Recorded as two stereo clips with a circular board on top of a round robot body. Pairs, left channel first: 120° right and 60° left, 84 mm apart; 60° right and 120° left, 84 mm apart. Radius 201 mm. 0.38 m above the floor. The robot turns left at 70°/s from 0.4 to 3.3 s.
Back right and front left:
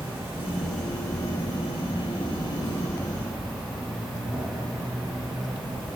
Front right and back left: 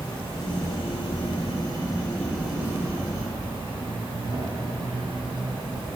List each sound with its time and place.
0.0 s an insect: 5° right, 3 m; by 6.0 s 150° left, 3 m